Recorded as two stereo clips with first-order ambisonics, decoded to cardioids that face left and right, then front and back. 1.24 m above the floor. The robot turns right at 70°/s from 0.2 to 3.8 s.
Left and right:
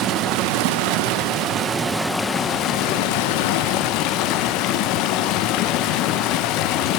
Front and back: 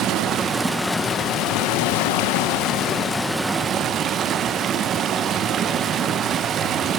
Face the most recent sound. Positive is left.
turn(degrees=120)